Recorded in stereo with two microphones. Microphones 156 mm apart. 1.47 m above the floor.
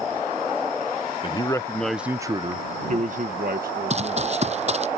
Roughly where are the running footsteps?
Right.